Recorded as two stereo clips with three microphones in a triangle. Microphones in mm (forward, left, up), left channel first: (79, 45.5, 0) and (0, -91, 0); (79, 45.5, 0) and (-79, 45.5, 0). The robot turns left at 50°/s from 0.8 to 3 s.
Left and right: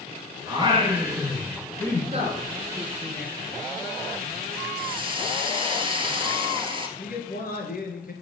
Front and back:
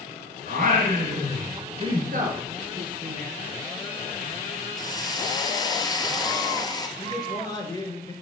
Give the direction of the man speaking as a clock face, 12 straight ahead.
10 o'clock.